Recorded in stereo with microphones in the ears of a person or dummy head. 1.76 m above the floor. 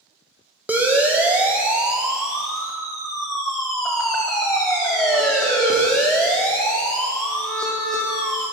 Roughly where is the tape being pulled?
I don't hear tape being pulled.